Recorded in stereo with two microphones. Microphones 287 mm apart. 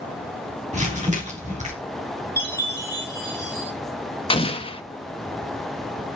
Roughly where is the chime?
Left.